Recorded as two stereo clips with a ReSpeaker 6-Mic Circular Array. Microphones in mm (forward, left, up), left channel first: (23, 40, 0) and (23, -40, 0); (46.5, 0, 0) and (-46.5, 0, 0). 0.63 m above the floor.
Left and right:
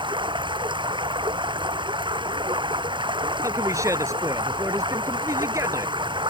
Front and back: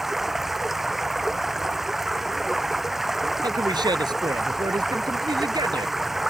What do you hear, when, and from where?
0.0 s running water: 90° right
3.4 s a man speaking: 140° right